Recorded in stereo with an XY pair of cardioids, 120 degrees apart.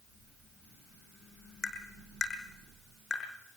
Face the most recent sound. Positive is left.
turn(degrees=30)